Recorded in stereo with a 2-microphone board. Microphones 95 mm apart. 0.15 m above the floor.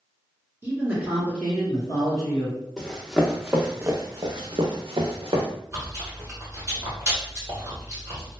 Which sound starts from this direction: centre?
Running footsteps, at 2.8 s.